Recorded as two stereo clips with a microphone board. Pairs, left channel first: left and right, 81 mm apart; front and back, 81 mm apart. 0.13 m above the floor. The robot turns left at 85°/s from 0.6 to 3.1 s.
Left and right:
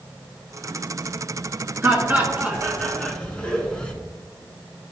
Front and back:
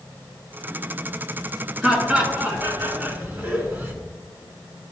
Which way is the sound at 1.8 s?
100° right.